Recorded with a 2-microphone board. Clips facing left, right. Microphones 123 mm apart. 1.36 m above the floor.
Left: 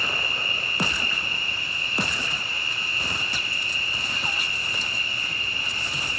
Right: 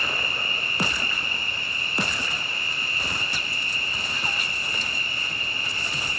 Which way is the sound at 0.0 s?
55° right (ahead or behind).